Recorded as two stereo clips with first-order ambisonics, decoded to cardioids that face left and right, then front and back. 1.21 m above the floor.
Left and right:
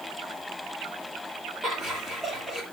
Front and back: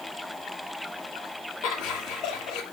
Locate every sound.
1.6 s laughter: 25° right, 2 m